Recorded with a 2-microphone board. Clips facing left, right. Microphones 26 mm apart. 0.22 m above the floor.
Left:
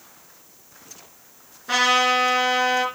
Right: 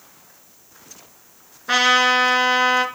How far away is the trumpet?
About 2 m.